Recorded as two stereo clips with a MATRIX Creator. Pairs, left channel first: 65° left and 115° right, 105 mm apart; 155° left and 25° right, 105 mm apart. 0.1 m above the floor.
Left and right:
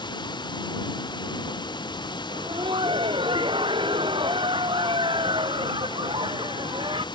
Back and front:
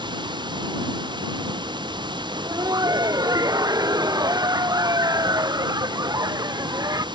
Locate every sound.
0.0 s running water: 20° left
2.3 s laughter: 75° right